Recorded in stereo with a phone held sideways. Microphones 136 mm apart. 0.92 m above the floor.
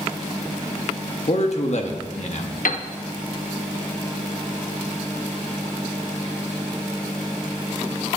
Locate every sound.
1.3 s a man speaking: 55° left (ahead or behind), 1.3 m
2.6 s a piano: 85° left, 0.7 m